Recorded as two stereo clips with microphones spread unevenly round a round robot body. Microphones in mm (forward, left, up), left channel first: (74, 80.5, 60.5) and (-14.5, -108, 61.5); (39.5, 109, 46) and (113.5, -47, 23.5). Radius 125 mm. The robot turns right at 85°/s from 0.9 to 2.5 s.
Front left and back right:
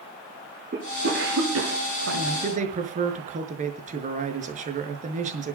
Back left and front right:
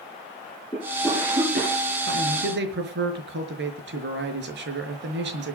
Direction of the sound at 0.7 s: 170° right.